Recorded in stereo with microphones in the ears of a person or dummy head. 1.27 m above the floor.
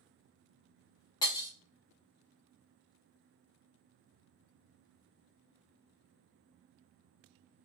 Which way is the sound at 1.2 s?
20° left (ahead or behind).